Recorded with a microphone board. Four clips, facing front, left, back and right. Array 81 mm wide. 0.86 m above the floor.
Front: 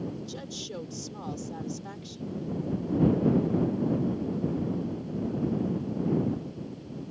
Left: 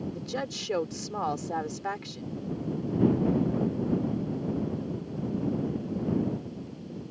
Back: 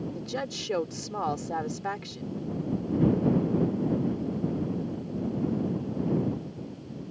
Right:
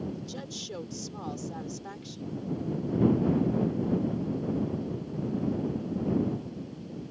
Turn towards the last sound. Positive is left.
turn(degrees=135)